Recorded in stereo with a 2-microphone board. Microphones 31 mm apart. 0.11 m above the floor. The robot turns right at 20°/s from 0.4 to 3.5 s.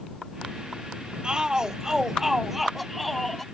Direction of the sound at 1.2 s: 30° right.